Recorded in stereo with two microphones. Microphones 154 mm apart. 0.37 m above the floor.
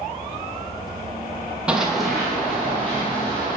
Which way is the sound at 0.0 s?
30° right (ahead or behind).